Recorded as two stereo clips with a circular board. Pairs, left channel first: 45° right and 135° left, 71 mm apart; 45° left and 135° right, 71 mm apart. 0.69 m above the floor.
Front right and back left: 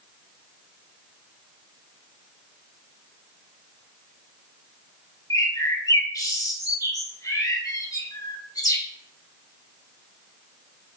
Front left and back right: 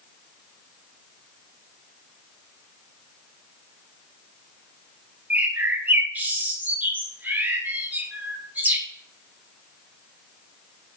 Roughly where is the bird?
Right.